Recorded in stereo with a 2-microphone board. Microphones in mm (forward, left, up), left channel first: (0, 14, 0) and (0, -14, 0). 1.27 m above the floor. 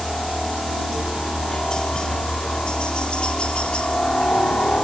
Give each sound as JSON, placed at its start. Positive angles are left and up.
{"t": 0.0, "sound": "a helicopter", "side_deg": 15}